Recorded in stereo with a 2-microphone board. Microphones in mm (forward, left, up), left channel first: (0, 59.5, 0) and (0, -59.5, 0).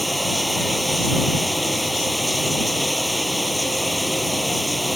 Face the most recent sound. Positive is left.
turn(degrees=0)  # may be behind; listen again after turning